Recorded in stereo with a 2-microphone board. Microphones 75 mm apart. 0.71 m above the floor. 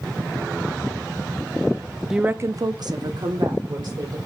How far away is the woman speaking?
About 0.5 m.